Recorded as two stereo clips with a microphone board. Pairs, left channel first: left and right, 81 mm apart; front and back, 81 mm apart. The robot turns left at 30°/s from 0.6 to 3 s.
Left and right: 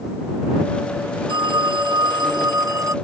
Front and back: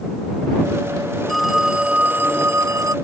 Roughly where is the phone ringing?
Right.